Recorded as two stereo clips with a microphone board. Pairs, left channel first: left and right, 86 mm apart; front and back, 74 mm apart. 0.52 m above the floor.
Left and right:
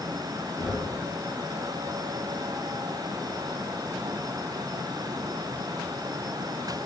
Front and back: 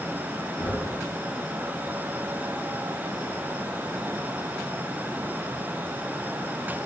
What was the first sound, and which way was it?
Knocking, 40° left.